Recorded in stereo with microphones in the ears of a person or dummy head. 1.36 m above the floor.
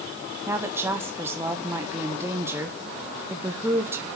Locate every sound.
0.5 s a woman speaking: 10° right (ahead or behind), 0.7 m